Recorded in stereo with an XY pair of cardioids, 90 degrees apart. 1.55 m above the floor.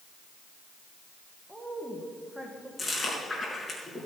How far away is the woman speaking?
About 1.6 m.